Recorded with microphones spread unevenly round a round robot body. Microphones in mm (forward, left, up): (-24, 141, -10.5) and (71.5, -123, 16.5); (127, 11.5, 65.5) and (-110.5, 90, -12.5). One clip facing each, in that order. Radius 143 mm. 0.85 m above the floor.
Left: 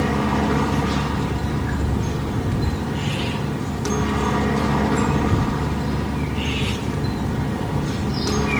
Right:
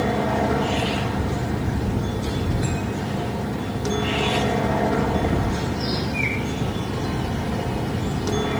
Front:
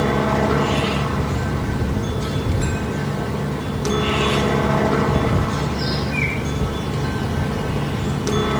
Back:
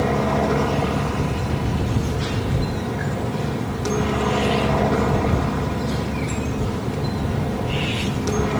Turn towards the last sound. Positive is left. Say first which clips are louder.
# left 1 dB, front 1 dB
turn(degrees=60)